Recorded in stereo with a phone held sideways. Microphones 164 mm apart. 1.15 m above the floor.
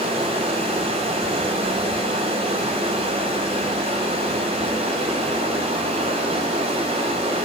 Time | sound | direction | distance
0.0 | running water | 40° right (ahead or behind) | 5 m